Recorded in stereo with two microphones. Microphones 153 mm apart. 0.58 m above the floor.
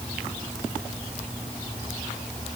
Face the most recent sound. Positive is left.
No sound to turn to.